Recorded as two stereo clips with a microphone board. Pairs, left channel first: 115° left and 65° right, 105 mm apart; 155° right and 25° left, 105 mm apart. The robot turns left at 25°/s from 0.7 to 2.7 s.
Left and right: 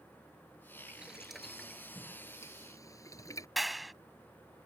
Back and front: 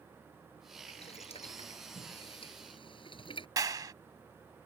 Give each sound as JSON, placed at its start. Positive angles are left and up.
{"t": 0.9, "sound": "boiling", "azimuth_deg": -145}
{"t": 3.6, "sound": "a clap", "azimuth_deg": 20}